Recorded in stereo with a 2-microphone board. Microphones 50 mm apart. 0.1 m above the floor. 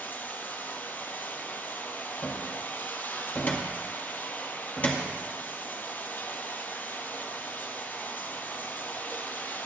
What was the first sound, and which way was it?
Running water, 40° left (ahead or behind).